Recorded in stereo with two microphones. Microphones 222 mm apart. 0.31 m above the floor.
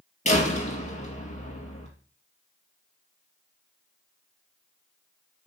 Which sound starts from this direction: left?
A door slam, at 0.2 s.